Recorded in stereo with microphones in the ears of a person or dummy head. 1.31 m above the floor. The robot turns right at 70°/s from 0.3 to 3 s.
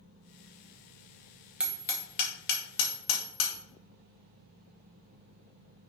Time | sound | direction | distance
1.6 | hammering | 10° right (ahead or behind) | 1.7 m